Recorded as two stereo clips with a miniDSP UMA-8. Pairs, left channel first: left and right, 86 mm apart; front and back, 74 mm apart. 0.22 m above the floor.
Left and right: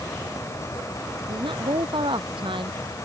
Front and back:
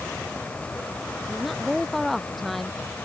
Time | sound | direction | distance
1.3 | a woman speaking | 85° right | ?